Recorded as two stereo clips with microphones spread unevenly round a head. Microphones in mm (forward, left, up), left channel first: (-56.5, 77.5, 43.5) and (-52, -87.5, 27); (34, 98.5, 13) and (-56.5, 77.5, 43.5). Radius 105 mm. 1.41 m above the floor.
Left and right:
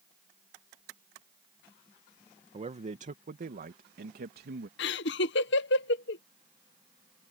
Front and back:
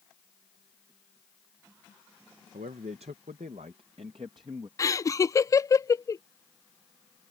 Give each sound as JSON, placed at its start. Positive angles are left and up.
{"t": 2.5, "sound": "a man speaking", "azimuth_deg": -140}
{"t": 4.8, "sound": "laughter", "azimuth_deg": 70}